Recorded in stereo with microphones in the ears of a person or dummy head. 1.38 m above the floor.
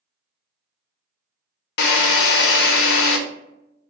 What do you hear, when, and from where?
1.8 s a drill: 65° left (ahead or behind), 0.6 m